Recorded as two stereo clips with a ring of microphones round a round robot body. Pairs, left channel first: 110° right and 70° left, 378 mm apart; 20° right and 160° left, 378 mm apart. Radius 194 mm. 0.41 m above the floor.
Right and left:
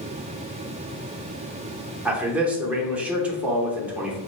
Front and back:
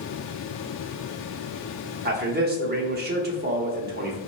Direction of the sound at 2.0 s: 150° left.